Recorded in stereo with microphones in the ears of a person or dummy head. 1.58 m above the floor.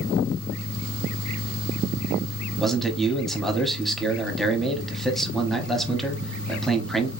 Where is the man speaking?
Centre (ahead or behind), 0.8 m.